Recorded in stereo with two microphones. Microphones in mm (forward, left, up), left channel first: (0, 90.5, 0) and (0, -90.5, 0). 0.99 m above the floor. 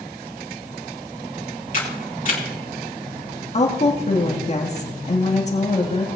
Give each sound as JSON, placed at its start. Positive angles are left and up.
{"t": 1.7, "sound": "a camera shutter", "side_deg": 50, "distance_m": 3.0}
{"t": 3.5, "sound": "a woman speaking", "side_deg": 40, "distance_m": 1.8}